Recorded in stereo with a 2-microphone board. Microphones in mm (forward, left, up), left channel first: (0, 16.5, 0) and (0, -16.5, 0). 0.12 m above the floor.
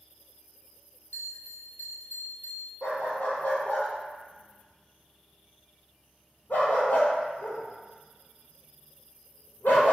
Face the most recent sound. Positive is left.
turn(degrees=70)  # may be behind; listen again after turning